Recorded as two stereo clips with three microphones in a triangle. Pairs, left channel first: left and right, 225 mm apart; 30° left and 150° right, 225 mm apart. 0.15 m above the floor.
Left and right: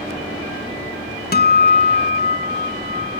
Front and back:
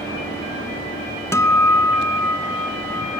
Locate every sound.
1.3 s a guitar: 100° left, 0.8 m